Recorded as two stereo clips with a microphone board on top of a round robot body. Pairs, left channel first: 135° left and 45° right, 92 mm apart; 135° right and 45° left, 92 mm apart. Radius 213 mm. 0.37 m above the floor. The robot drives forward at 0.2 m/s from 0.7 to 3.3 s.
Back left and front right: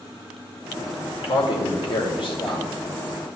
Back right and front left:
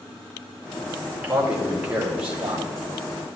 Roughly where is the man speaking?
Behind left.